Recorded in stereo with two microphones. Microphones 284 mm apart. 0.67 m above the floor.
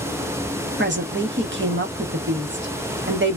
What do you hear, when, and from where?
0.8 s a woman speaking: 40° right (ahead or behind), 0.9 m